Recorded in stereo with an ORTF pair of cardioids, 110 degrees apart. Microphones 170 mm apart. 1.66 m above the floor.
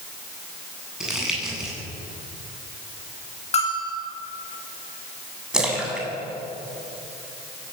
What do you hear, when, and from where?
1.0 s crumpling: 5° right, 9 m
3.5 s a bell: 40° left, 10 m
5.5 s a splash: 5° right, 7.5 m